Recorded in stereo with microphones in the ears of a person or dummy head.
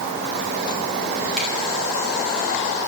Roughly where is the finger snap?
Centre.